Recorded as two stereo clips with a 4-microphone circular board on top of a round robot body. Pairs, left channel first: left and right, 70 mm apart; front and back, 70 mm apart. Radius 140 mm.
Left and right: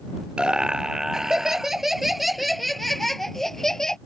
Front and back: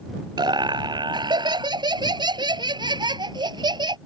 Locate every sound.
0.4 s laughter: 170° right; by 4.0 s 175° left